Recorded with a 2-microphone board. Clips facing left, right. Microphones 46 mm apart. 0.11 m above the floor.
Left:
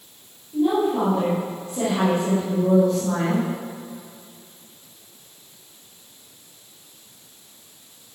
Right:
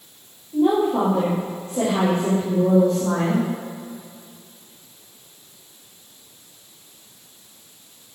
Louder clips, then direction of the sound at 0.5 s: Right 2 dB; 45° right (ahead or behind).